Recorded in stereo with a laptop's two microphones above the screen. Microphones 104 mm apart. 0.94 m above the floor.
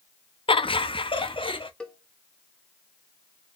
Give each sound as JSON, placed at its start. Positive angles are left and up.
{"t": 0.5, "sound": "laughter", "side_deg": 60, "distance_m": 0.5}
{"t": 1.8, "sound": "a cowbell", "side_deg": 10, "distance_m": 0.7}